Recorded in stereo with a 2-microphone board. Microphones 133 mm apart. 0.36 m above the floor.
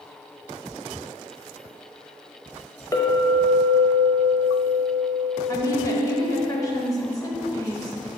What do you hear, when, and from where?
2.9 s a clink: 25° left (ahead or behind), 0.8 m
5.5 s a woman speaking: 25° left (ahead or behind), 1.1 m